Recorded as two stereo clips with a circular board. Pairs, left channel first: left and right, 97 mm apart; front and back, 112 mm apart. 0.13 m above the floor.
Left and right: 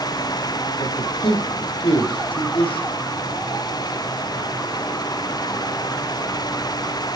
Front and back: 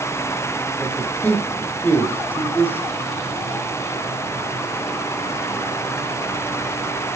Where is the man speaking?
80° left, 6 m; by 2.9 s 70° left, 7.5 m.